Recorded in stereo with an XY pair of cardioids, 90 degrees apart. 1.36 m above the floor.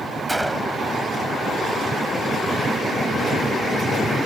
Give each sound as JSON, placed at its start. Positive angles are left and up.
{"t": 0.3, "sound": "a gunshot", "azimuth_deg": -15}